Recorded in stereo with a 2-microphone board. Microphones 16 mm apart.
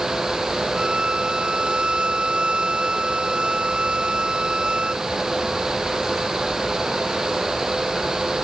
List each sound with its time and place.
0.7 s a violin: 65° right (ahead or behind)